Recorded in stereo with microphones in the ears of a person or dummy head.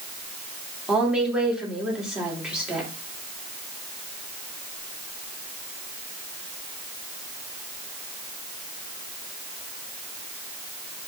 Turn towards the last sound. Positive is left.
turn(degrees=0)  # may be behind; listen again after turning